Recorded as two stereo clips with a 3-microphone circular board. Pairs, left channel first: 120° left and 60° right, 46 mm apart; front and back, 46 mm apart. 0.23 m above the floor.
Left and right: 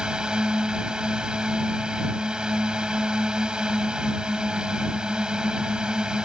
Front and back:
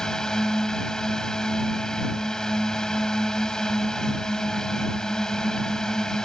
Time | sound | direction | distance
0.0 | a drone | 45° right | ?